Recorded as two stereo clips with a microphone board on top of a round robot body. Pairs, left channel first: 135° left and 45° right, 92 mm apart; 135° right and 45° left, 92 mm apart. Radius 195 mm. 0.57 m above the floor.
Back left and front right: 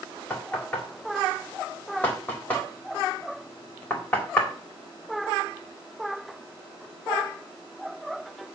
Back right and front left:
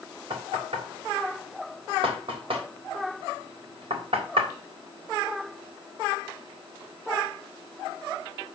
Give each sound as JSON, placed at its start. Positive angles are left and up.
{"t": 0.3, "sound": "knocking", "azimuth_deg": 65, "distance_m": 3.5}